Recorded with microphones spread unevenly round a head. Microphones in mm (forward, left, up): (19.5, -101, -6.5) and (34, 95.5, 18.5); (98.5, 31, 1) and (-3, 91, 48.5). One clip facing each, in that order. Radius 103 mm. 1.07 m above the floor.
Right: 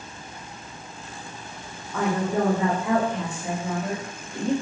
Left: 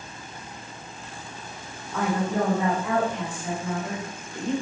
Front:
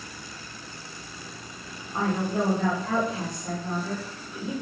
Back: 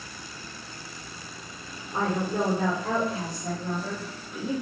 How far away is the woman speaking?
About 3 m.